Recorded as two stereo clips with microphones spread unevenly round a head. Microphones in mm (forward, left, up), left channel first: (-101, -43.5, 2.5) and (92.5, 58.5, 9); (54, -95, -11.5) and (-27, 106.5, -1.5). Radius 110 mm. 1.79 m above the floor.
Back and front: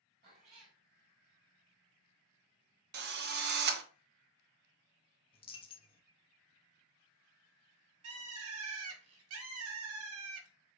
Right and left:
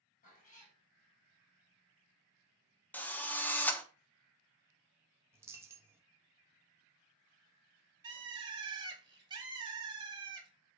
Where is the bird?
40° left, 1.8 m.